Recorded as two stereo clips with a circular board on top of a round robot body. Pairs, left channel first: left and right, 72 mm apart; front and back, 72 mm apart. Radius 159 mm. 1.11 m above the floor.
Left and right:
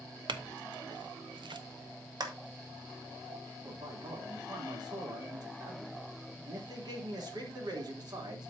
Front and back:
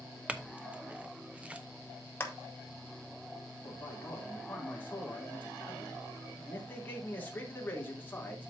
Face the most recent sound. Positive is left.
turn(degrees=-65)